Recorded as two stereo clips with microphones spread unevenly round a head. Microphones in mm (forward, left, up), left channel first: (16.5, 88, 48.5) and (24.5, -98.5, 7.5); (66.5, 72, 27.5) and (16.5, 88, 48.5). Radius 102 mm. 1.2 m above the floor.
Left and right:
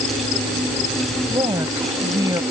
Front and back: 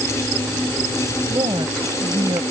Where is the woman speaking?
165° right.